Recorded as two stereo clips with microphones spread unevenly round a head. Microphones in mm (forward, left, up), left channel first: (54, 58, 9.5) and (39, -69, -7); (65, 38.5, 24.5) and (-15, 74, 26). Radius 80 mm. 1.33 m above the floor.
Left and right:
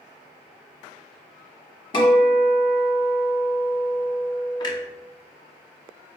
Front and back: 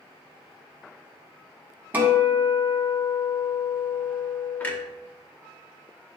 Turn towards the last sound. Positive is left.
turn(degrees=45)